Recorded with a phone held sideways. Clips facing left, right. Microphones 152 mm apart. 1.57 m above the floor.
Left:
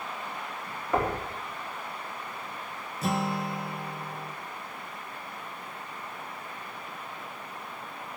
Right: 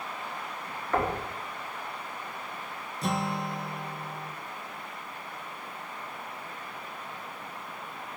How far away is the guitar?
About 0.8 m.